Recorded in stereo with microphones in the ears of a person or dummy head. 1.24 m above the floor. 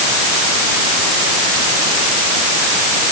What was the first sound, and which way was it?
Only background noise.